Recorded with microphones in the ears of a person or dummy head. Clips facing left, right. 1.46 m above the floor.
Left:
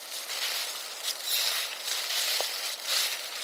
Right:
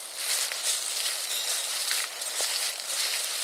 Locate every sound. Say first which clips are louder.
1.2 s cutlery clinking: left 1 dB; 60° left (ahead or behind), 2.5 m